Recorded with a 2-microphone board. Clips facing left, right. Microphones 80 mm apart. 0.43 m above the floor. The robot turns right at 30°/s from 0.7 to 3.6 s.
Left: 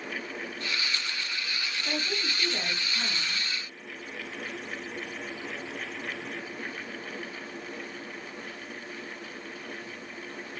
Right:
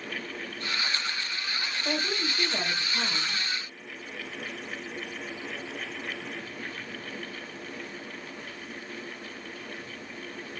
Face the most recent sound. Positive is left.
turn(degrees=-70)